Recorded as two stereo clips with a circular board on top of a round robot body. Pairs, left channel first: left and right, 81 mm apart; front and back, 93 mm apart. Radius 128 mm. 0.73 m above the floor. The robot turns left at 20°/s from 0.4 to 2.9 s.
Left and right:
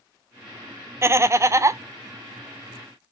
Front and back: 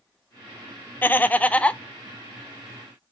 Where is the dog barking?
I don't hear a dog barking.